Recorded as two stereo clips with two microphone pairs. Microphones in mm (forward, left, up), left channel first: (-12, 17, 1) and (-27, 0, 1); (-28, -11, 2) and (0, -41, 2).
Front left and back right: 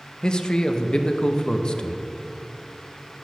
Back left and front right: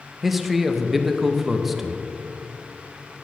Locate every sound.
0.2 s a man speaking: 35° left, 0.6 m